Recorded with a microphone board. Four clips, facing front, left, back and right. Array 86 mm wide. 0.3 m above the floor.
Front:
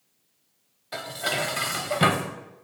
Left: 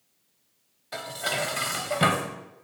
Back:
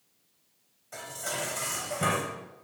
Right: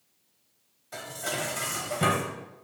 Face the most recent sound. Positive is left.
turn(degrees=35)